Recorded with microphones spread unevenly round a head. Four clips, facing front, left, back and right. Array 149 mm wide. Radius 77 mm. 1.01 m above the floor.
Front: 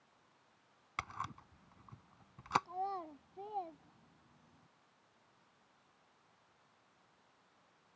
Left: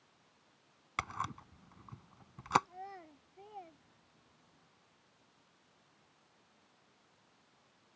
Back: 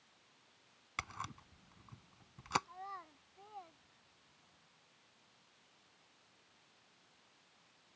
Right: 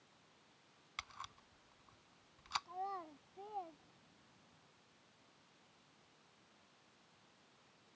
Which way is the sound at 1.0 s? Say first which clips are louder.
Left 13 dB, front 2 dB; 85° left.